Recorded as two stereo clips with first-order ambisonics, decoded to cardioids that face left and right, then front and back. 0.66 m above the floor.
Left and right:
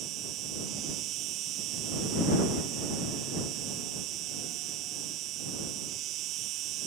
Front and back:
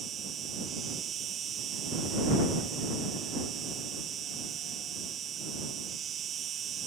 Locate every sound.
0.0 s an insect: 125° right